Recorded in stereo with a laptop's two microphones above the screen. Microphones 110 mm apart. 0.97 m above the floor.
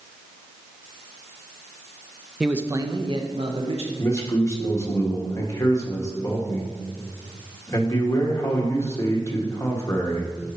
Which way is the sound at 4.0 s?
30° left (ahead or behind).